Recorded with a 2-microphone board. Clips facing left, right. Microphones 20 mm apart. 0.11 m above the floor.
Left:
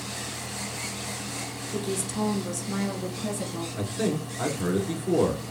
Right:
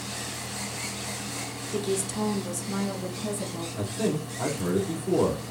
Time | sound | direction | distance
1.7 | a woman speaking | 20° right (ahead or behind) | 1.3 m
3.8 | a man speaking | 35° left (ahead or behind) | 1.4 m